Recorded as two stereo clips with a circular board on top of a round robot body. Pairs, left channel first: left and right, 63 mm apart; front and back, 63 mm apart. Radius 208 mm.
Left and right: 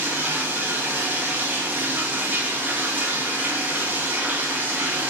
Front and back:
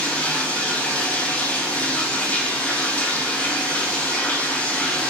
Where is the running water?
55° right, 0.7 m.